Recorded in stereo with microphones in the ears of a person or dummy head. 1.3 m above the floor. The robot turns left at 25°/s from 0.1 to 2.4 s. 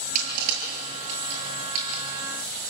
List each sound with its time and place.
0.1 s crushing: 50° right (ahead or behind), 8.5 m; by 2.0 s 80° right, 8.5 m